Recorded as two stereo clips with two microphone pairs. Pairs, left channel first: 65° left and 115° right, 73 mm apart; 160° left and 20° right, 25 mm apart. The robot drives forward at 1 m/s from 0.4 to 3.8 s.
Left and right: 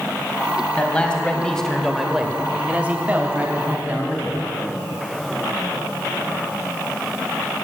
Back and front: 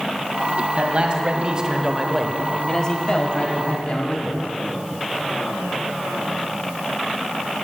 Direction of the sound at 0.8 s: 5° right.